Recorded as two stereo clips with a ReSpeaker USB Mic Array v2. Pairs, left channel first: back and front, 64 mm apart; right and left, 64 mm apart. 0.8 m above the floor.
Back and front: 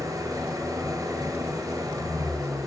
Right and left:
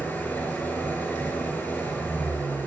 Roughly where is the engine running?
Ahead right.